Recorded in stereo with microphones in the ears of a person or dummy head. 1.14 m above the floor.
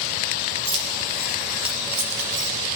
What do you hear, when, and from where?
0.7 s keys jangling: 65° right (ahead or behind), 2.5 m; by 2.5 s 40° right (ahead or behind), 3.5 m